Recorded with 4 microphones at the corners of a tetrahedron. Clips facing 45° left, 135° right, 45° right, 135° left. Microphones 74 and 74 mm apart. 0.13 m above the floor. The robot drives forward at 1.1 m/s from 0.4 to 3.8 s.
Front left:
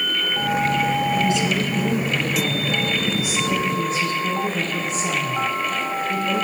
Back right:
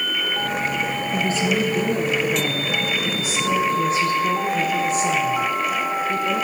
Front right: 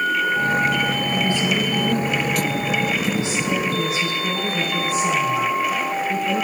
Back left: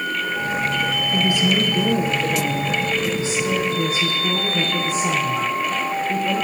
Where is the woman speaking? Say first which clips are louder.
Front left 1 dB, back left 4 dB; 160° right, 1.3 m; by 6.4 s 175° right, 4 m.